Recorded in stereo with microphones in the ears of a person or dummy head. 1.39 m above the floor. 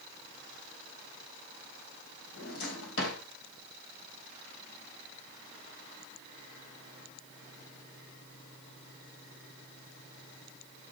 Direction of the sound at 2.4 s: 75° left (ahead or behind).